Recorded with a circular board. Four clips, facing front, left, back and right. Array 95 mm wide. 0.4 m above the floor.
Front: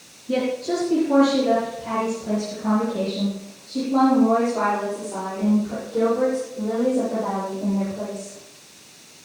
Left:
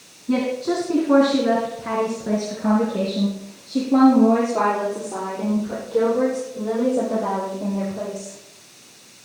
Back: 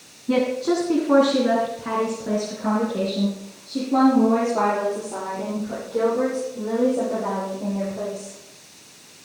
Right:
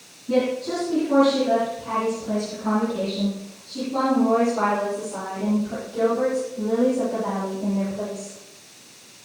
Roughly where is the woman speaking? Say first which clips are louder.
Left 1 dB, back 2 dB; behind.